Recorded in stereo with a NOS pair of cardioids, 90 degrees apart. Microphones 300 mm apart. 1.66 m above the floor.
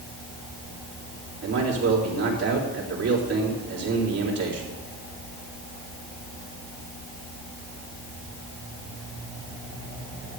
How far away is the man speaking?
About 4 m.